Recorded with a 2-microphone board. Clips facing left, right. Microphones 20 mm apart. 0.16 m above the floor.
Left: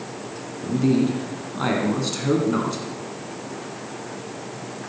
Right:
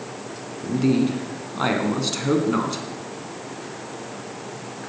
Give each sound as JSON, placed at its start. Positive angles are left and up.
{"t": 0.6, "sound": "a man speaking", "side_deg": -15, "distance_m": 1.6}